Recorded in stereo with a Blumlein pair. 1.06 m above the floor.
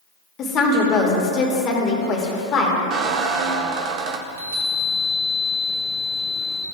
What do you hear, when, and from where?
0.4 s a woman speaking: 30° left, 1.9 m
2.9 s a squeak: 35° right, 0.8 m
4.3 s a chime: 55° right, 1.8 m